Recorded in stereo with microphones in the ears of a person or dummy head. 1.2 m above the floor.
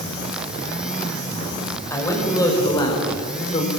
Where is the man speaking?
20° left (ahead or behind), 6.5 m; by 3.7 s 45° left (ahead or behind), 5 m.